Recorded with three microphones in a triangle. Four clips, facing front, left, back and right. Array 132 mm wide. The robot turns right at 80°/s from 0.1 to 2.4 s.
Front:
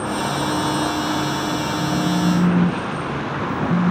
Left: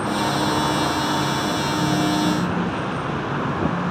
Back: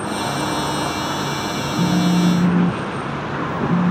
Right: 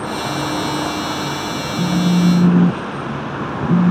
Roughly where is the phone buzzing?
Behind right.